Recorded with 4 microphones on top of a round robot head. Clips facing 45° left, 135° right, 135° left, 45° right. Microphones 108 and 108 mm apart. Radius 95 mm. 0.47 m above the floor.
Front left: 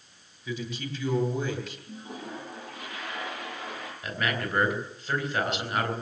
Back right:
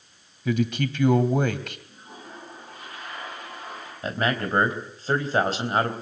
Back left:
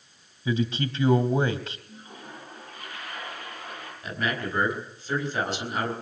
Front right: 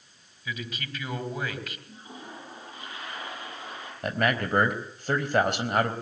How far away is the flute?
No flute in this recording.